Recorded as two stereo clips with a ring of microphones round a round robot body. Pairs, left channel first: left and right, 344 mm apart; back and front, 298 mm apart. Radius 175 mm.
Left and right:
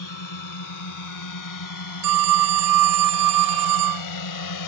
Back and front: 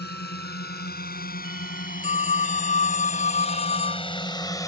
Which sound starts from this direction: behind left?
A drone, at 0.0 s.